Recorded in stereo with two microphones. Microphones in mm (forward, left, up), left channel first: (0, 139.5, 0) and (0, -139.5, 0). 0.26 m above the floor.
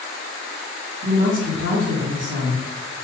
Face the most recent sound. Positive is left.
turn(degrees=-45)  # may be behind; listen again after turning